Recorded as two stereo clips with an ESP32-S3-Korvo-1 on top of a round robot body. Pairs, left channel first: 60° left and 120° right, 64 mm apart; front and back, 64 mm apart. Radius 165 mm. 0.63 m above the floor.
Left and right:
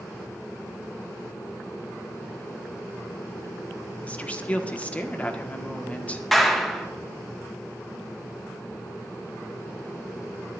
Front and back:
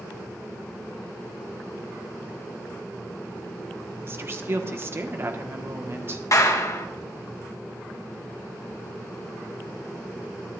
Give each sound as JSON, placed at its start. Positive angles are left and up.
{"t": 4.0, "sound": "a woman speaking", "azimuth_deg": 130, "distance_m": 1.4}
{"t": 6.3, "sound": "a clap", "azimuth_deg": -25, "distance_m": 1.6}